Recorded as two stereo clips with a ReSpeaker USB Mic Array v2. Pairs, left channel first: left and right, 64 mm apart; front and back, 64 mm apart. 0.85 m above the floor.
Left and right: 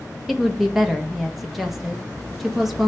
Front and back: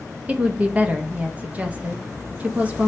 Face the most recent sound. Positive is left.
turn(degrees=-175)